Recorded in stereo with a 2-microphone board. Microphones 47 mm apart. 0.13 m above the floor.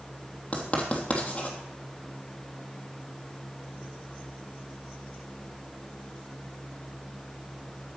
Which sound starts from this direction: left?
Writing, at 0.5 s.